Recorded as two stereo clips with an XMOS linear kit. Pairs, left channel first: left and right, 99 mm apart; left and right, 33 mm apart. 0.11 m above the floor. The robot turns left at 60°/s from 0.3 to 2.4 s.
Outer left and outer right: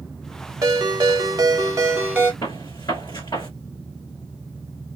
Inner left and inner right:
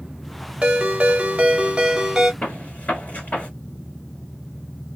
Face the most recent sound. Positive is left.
turn(degrees=45)  # may be behind; listen again after turning